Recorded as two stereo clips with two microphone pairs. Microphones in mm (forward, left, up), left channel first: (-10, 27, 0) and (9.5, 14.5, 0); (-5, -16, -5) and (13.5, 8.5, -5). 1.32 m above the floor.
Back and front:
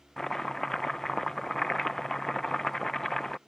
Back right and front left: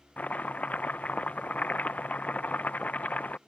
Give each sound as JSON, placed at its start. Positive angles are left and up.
{"t": 0.2, "sound": "chopping", "azimuth_deg": -150}